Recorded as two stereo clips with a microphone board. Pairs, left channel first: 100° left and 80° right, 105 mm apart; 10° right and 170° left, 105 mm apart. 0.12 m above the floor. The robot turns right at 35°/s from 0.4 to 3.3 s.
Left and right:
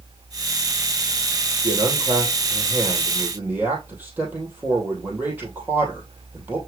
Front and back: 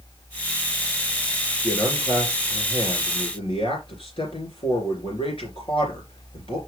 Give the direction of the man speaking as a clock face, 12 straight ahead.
2 o'clock.